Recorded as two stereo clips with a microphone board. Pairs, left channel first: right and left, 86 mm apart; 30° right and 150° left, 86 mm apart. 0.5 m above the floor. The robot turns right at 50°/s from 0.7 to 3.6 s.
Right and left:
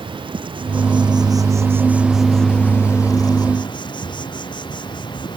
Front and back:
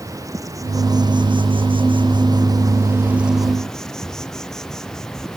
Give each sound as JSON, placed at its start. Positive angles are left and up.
{"t": 0.0, "sound": "an insect", "azimuth_deg": 100}